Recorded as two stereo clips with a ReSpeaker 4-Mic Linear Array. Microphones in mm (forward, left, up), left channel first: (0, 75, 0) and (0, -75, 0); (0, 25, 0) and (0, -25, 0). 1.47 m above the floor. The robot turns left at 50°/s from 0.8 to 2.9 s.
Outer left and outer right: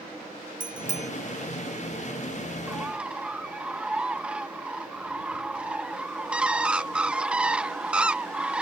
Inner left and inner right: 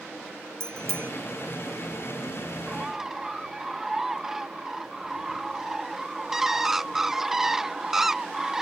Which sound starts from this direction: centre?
A bird, at 2.7 s.